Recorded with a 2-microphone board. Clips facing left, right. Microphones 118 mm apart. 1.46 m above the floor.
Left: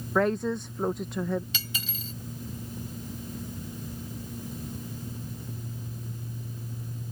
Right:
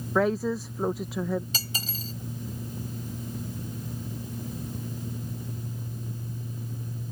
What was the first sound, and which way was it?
A woman speaking, 5° right (ahead or behind).